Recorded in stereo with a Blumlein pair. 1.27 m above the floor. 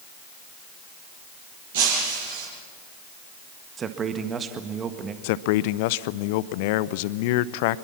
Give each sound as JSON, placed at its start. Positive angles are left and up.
{"t": 1.7, "sound": "breaking glass", "azimuth_deg": -55, "distance_m": 6.5}
{"t": 3.8, "sound": "a man speaking", "azimuth_deg": -20, "distance_m": 1.6}
{"t": 5.2, "sound": "a man speaking", "azimuth_deg": 50, "distance_m": 0.6}